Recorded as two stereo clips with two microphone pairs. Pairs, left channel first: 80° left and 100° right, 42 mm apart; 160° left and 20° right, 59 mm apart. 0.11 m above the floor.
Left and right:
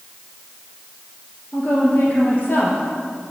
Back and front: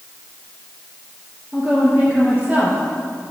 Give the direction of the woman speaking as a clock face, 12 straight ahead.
11 o'clock.